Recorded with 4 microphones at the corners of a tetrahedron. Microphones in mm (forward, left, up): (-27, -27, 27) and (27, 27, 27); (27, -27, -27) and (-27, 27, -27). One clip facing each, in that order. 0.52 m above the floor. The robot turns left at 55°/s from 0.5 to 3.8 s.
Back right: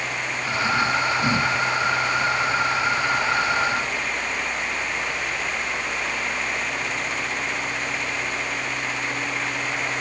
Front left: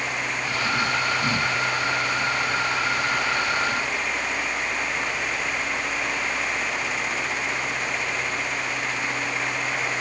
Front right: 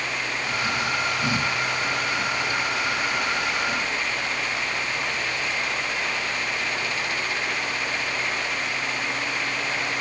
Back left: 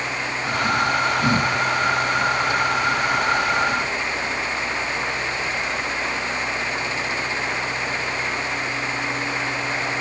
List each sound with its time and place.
Only background noise.